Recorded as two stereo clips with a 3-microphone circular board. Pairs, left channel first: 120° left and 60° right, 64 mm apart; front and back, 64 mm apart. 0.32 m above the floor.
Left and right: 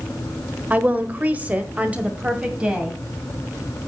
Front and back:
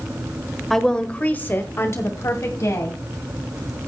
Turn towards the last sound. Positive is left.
turn(degrees=20)